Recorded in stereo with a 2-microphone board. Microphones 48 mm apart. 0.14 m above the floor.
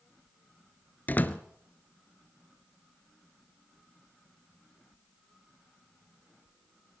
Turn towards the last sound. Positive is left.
turn(degrees=40)  # may be behind; listen again after turning